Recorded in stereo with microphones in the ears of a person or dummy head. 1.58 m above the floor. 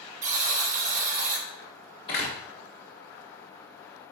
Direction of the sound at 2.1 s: 25° left (ahead or behind).